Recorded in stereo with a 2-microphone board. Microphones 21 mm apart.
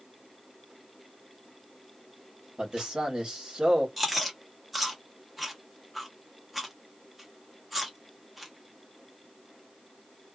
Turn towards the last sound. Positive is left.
turn(degrees=-5)  # may be behind; listen again after turning